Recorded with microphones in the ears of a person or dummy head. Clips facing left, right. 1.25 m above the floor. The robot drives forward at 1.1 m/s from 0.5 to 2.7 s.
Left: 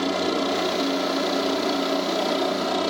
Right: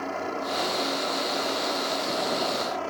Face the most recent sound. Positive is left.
turn(degrees=55)  # may be behind; listen again after turning